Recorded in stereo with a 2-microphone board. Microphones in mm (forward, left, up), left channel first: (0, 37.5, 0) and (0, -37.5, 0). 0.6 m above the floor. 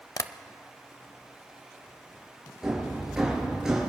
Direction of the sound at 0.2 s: 55° left (ahead or behind).